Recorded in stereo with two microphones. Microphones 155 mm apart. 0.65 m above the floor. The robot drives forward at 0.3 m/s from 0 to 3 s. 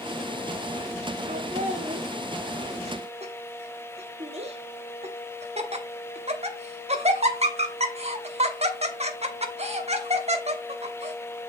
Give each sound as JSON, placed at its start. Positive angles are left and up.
{"t": 1.3, "sound": "laughter", "side_deg": -55, "distance_m": 1.0}